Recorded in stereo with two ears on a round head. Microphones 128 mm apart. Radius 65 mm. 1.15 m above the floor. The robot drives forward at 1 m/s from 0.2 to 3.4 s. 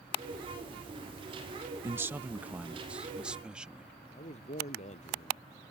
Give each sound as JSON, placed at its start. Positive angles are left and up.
{"t": 1.8, "sound": "a man speaking", "side_deg": -20}
{"t": 4.1, "sound": "a man speaking", "side_deg": 50}